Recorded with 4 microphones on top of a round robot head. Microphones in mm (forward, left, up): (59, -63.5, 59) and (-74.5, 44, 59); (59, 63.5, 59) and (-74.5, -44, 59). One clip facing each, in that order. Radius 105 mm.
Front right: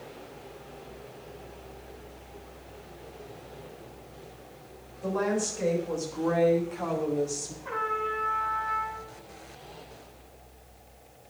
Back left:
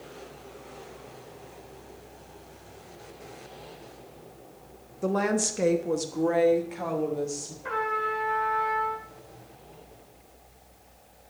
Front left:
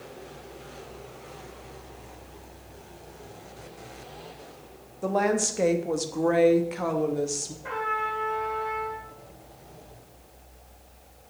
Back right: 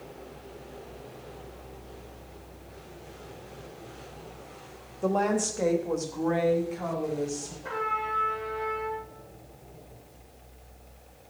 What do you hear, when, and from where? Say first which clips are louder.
5.0 s a woman speaking: back left 2 dB, front left 1 dB; 125° left, 1.1 m; by 7.5 s 45° left, 1.4 m
7.6 s a trumpet: back left 3 dB, front left 2 dB; 120° left, 2.5 m